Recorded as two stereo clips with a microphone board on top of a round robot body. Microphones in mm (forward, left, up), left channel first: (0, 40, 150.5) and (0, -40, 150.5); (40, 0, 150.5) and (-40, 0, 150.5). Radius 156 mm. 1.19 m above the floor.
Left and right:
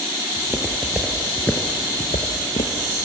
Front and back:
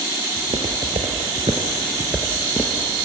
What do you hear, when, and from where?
0.4 s footsteps: 150° right, 2 m; by 2.9 s 70° left, 2 m